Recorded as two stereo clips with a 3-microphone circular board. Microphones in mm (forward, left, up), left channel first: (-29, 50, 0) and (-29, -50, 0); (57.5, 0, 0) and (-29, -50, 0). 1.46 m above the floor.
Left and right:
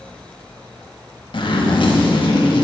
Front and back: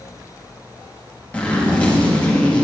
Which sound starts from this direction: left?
A zipper, at 1.3 s.